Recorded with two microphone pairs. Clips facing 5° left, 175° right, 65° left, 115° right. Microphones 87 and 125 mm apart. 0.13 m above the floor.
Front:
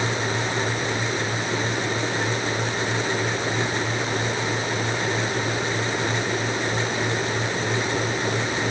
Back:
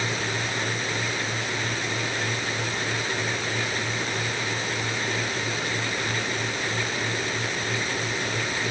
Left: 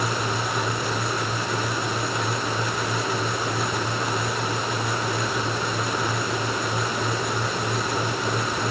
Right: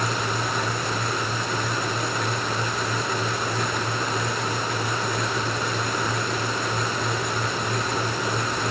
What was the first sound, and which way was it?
Only background noise.